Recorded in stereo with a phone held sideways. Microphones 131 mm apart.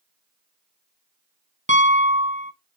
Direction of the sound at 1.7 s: 65° right (ahead or behind).